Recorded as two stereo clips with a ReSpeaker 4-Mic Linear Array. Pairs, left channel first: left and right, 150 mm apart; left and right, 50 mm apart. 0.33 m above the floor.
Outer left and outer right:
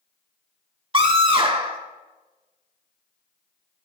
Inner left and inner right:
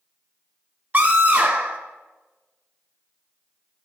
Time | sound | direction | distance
0.9 | a scream | 35° right (ahead or behind) | 1.0 m